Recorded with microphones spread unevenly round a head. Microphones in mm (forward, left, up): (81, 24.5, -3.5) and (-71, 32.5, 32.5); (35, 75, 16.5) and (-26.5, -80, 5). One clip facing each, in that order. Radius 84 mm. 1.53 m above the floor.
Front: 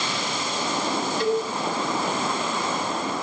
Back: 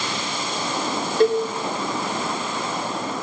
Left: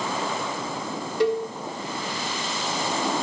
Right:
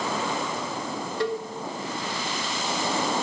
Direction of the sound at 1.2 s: 140° left.